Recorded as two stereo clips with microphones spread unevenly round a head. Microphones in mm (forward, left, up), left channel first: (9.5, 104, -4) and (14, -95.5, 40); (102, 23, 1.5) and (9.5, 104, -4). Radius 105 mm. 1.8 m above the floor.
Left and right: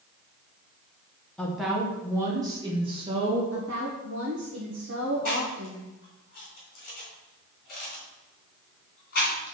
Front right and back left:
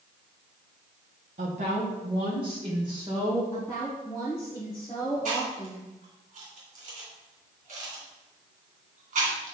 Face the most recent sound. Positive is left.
turn(degrees=145)